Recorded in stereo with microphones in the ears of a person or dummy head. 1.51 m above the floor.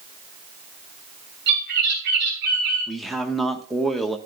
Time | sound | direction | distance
1.5 | a bird | 60° right (ahead or behind) | 7 m
2.9 | a man speaking | centre (ahead or behind) | 1.3 m